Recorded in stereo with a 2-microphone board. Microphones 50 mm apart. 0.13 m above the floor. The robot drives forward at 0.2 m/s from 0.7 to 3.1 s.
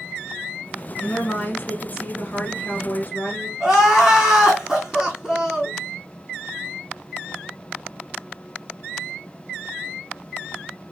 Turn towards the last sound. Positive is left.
turn(degrees=-15)  # may be behind; listen again after turning